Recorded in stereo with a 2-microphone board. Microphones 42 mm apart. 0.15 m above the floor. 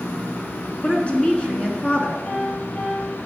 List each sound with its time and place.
0.8 s a woman speaking: 25° left (ahead or behind), 1.7 m
2.2 s a piano: 45° left (ahead or behind), 3.5 m